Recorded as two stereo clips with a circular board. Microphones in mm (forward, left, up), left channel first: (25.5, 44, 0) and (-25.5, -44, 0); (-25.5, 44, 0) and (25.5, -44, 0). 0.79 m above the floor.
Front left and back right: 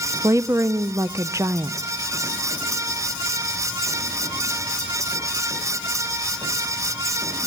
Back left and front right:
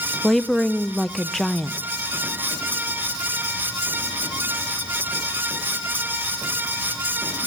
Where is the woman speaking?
155° right, 0.6 m.